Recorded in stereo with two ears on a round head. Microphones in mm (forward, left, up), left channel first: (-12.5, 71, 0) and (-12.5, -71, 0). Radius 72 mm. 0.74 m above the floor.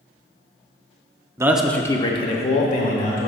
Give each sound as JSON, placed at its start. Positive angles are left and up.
{"t": 1.4, "sound": "a man speaking", "side_deg": -20, "distance_m": 0.6}